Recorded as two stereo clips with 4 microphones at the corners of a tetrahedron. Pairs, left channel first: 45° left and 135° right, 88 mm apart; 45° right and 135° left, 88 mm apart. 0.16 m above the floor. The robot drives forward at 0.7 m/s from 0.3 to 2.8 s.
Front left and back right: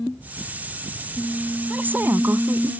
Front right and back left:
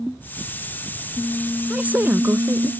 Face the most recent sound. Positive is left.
turn(degrees=180)